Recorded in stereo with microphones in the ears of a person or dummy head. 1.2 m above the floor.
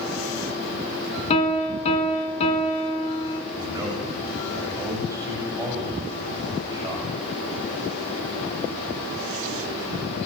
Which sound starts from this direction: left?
A piano, at 1.3 s.